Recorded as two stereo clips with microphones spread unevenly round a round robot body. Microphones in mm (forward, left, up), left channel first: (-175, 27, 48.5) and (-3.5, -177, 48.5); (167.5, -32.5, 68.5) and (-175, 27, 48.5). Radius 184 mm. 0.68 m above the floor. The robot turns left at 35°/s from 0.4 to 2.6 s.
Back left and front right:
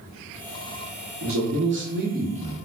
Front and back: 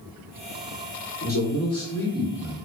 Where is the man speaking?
70° right, 1.0 m; by 2.5 s 115° right, 1.0 m.